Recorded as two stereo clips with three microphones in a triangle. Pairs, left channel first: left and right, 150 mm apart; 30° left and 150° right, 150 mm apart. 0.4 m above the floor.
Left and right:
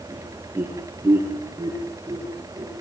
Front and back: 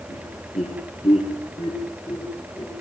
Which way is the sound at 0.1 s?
10° right.